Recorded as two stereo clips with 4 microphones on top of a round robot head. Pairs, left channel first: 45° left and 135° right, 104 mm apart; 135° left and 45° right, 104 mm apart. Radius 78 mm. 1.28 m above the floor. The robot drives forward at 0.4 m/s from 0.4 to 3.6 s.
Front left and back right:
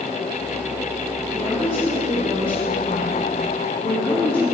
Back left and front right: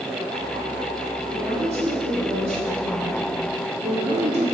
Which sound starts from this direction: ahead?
A woman speaking, at 1.3 s.